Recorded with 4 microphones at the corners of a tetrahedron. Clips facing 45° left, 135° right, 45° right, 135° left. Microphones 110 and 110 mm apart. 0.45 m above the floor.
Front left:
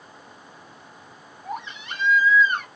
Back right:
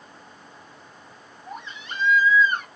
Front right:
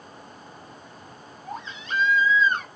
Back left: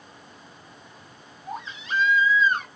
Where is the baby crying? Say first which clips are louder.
Front left 4 dB, back left 1 dB; 50° left, 2.5 m.